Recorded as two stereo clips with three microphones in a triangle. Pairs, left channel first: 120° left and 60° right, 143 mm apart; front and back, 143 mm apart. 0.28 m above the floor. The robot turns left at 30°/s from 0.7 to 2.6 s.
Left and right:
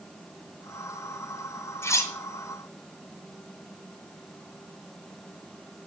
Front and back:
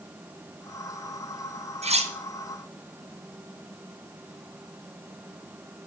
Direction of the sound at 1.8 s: 175° right.